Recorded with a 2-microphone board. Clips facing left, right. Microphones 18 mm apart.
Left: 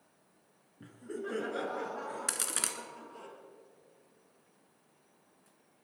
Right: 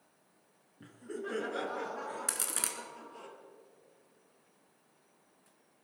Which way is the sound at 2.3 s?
15° left (ahead or behind).